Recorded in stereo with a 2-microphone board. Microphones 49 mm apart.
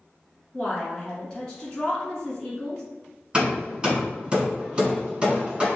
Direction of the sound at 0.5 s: 15° left (ahead or behind).